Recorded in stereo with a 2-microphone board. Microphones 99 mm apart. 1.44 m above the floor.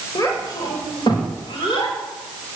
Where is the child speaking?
35° left (ahead or behind), 5.5 m; by 1.9 s 60° left (ahead or behind), 5.5 m.